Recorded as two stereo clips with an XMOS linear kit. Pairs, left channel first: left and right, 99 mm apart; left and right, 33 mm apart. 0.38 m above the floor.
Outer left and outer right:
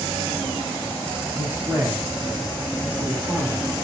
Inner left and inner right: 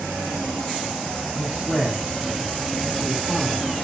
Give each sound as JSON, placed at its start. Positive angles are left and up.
{"t": 1.3, "sound": "a man speaking", "side_deg": -20, "distance_m": 1.3}